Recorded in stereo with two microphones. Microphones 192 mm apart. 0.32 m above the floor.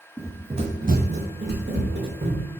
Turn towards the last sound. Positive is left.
turn(degrees=-75)  # may be behind; listen again after turning